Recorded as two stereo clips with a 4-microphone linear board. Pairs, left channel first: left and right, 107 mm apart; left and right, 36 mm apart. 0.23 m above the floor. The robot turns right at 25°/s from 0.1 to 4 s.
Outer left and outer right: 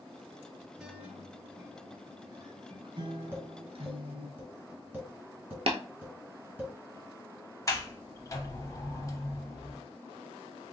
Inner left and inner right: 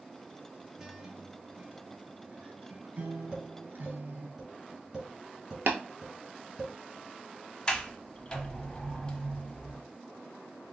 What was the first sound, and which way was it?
A guitar, 170° right.